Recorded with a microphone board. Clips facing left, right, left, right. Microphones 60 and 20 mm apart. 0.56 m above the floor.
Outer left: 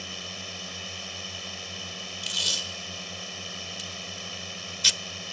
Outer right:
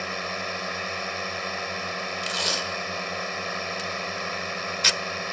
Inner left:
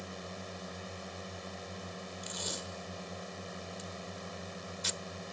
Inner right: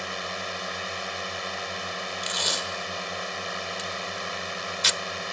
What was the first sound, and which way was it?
A drone, 55° right (ahead or behind).